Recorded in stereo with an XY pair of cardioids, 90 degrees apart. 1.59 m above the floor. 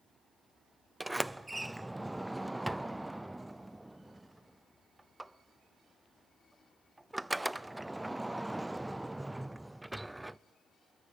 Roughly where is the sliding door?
Ahead.